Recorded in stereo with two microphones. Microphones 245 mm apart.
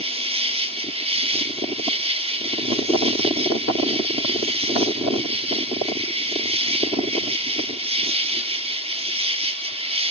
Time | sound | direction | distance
0.0 | an insect | 25° right (ahead or behind) | 0.9 m